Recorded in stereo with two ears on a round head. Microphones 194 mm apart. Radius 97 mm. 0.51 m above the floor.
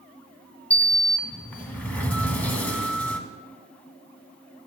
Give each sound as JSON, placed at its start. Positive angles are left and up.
{"t": 0.7, "sound": "a sliding door", "side_deg": 10, "distance_m": 0.7}